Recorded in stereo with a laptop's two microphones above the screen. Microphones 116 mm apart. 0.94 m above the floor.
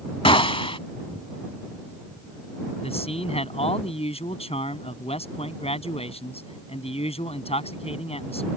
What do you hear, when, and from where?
0.2 s a gunshot: 50° left (ahead or behind)
2.8 s a man speaking: 60° left (ahead or behind)